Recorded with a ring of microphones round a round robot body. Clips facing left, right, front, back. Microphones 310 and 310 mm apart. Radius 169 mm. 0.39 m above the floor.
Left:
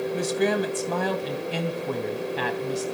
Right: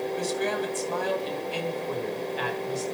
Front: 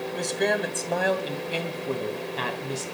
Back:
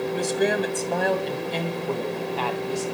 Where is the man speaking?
100° left, 2.5 m; by 2.8 s 65° left, 3 m.